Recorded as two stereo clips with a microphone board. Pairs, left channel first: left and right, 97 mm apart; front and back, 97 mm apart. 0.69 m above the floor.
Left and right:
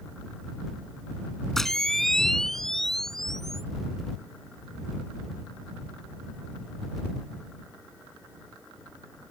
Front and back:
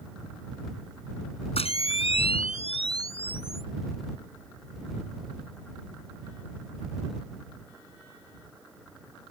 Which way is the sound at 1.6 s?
5° left.